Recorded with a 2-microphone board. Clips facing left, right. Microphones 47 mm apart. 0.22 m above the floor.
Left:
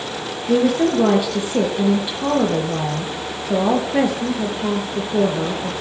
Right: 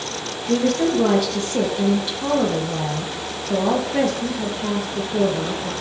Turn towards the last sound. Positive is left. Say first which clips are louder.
# left 2 dB
turn(degrees=15)  # may be behind; listen again after turning